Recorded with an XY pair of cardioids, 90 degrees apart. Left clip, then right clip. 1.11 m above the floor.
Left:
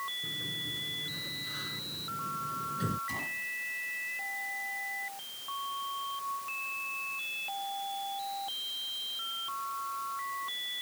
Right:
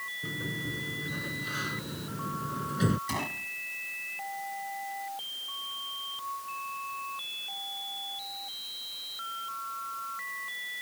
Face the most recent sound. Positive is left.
turn(degrees=-65)